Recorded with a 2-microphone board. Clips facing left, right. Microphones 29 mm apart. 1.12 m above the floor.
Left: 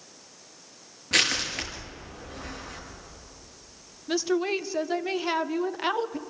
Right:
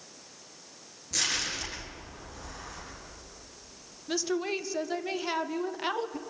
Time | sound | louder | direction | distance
1.1 | crushing | left 7 dB | 55° left (ahead or behind) | 5.5 m
4.1 | a woman speaking | left 5 dB | 15° left (ahead or behind) | 0.6 m